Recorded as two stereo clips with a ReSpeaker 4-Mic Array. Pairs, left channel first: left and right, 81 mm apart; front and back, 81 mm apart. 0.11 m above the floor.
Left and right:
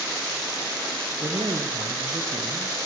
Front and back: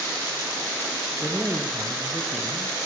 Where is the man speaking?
110° right, 2 m; by 2.9 s 70° right, 2.5 m.